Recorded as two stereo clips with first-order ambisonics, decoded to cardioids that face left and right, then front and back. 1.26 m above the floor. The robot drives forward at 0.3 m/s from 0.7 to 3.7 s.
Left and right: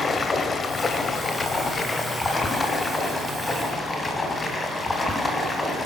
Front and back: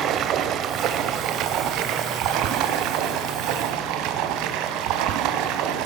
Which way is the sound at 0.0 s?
155° left.